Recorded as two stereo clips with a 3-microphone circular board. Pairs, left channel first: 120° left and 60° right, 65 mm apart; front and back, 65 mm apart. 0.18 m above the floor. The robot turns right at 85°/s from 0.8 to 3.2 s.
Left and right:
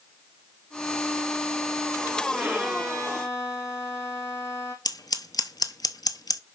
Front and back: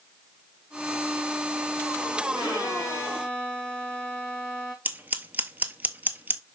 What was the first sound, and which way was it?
A violin, straight ahead.